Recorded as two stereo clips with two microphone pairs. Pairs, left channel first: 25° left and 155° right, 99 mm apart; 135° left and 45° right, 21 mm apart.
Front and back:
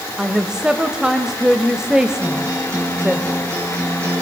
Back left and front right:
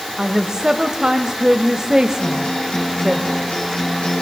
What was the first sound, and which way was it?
A woman speaking, 75° right.